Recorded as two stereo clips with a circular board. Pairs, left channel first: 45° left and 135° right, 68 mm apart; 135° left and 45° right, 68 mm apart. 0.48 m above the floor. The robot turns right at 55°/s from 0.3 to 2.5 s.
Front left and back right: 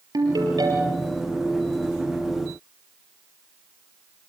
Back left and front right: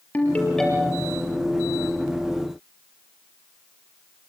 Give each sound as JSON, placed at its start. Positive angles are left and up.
{"t": 0.1, "sound": "a ringtone", "azimuth_deg": -160, "distance_m": 5.0}